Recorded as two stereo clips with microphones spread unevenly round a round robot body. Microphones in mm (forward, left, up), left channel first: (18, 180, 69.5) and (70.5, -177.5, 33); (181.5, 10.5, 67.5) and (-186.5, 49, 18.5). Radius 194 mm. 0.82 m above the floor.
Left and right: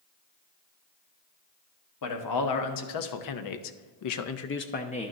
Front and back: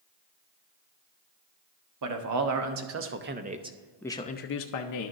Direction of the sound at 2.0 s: 140° left.